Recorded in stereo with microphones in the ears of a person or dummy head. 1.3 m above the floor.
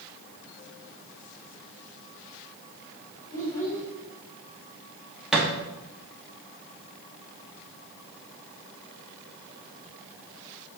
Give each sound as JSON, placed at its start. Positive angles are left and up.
{"t": 3.3, "sound": "a child speaking", "side_deg": 10, "distance_m": 3.5}
{"t": 5.3, "sound": "a thud", "side_deg": -5, "distance_m": 1.1}